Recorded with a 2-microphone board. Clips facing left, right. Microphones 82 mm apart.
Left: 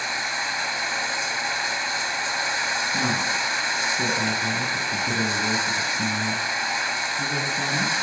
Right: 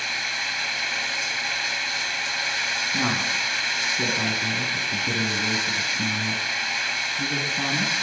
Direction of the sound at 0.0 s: 25° left (ahead or behind).